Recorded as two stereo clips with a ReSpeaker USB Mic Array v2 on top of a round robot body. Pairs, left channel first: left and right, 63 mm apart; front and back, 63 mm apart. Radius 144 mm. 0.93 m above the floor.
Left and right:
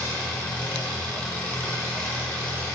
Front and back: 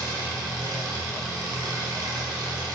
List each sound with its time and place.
0.0 s an engine running: 160° left, 4 m